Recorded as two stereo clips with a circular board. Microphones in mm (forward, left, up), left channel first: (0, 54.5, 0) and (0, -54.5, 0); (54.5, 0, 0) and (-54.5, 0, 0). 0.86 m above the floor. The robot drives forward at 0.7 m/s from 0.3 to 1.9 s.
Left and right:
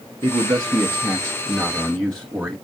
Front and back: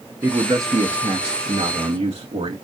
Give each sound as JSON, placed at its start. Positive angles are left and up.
{"t": 0.2, "sound": "a man speaking", "azimuth_deg": -120, "distance_m": 0.7}